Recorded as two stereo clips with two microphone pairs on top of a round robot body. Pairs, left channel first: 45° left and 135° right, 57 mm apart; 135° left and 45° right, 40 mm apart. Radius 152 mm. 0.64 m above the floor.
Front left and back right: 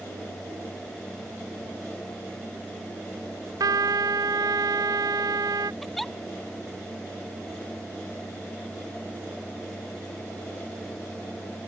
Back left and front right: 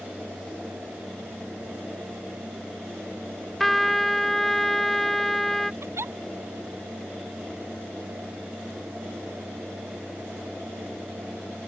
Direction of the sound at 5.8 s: 40° right.